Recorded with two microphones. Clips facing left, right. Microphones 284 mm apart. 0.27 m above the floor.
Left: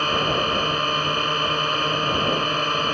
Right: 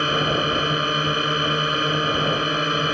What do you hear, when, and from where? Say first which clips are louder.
0.0 s a drone: right 2 dB; 20° right (ahead or behind)